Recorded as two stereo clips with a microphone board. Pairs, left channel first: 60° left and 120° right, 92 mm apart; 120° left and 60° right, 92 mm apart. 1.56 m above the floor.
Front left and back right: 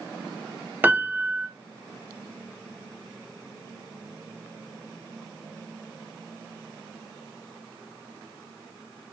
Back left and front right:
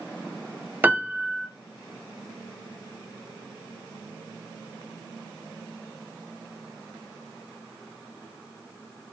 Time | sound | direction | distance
0.8 | a piano | 90° right | 0.6 m